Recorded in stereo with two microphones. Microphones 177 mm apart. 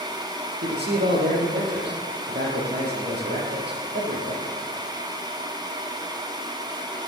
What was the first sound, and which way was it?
A man speaking, 75° right (ahead or behind).